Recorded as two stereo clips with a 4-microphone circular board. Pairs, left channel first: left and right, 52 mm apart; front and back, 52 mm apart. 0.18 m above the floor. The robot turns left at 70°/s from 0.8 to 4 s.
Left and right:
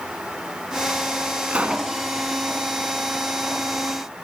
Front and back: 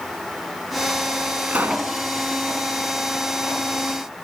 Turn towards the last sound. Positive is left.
turn(degrees=50)